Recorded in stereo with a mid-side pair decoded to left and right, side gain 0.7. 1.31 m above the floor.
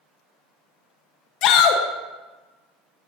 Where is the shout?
60° left, 0.9 m.